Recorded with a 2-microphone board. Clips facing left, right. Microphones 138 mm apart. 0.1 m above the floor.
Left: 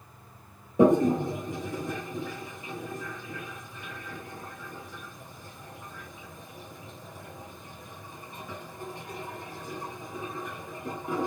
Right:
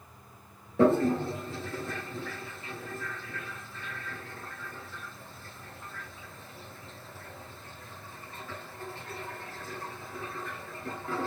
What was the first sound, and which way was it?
A toilet flushing, 15° left (ahead or behind).